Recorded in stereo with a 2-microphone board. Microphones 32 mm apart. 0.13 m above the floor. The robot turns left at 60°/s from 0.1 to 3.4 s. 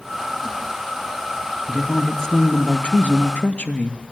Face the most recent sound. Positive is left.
turn(degrees=90)